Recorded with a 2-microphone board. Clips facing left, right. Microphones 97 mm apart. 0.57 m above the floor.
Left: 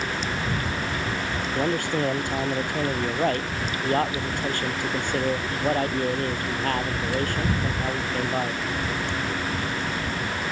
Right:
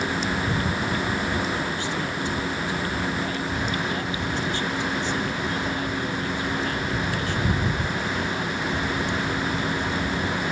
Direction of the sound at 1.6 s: 55° left (ahead or behind).